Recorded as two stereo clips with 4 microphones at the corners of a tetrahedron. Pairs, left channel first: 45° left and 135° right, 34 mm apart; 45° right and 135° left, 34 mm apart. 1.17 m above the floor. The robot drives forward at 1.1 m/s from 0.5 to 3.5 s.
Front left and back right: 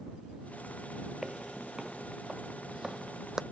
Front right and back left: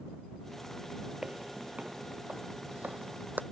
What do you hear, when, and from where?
1.2 s footsteps: 175° left; by 3.4 s 155° left